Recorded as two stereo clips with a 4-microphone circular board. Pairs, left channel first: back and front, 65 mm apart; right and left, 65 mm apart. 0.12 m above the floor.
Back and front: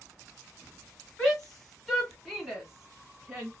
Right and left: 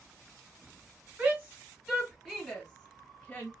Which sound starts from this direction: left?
A shout, at 1.2 s.